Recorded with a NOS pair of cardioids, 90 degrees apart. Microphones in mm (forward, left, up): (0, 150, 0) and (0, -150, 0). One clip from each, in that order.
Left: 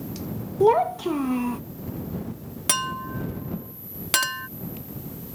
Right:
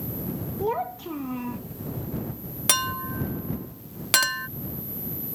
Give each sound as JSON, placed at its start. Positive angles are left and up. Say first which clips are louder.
{"t": 0.6, "sound": "a child speaking", "louder": "left 9 dB", "azimuth_deg": 45}
{"t": 2.7, "sound": "a clink", "louder": "right 1 dB", "azimuth_deg": -10}